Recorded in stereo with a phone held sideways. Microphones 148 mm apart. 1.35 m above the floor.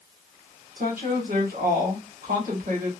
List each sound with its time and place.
0.8 s a woman speaking: 70° right (ahead or behind), 1.3 m